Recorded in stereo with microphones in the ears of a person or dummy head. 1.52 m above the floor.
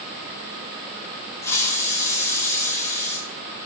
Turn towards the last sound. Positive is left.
turn(degrees=15)  # may be behind; listen again after turning